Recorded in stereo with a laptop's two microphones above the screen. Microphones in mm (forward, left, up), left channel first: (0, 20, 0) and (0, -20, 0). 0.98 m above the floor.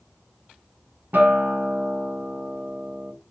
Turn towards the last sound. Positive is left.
turn(degrees=-60)  # may be behind; listen again after turning